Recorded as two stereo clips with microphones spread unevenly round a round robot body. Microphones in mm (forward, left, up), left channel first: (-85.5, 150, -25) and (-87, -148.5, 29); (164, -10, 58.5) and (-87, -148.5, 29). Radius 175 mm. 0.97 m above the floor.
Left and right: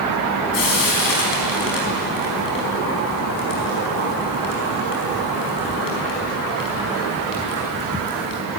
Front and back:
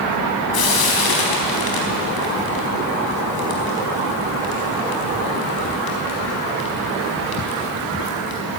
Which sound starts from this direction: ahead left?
Frying, at 0.5 s.